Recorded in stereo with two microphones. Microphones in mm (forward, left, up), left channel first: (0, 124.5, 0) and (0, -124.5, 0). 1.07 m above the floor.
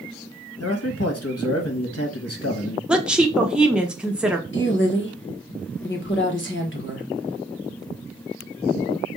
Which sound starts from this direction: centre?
A woman speaking, at 2.9 s.